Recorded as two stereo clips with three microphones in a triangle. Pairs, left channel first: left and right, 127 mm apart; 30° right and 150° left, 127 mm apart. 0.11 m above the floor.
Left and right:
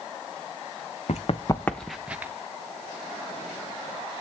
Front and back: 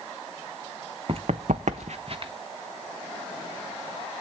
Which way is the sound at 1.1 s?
110° left.